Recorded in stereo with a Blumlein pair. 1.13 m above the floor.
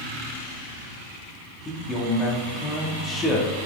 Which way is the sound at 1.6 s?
20° left.